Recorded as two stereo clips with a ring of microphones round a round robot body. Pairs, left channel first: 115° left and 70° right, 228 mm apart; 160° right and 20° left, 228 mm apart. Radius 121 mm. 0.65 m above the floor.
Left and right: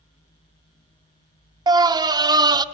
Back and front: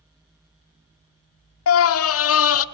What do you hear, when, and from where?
1.7 s a scream: 140° right, 1.2 m